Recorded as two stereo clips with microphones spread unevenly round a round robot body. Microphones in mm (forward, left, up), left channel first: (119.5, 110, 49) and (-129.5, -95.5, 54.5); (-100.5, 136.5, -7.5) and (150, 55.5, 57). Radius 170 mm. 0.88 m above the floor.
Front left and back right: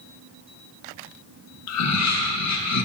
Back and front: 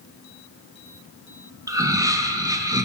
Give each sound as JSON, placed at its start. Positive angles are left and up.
{"t": 1.7, "sound": "laughter", "azimuth_deg": 65, "distance_m": 1.4}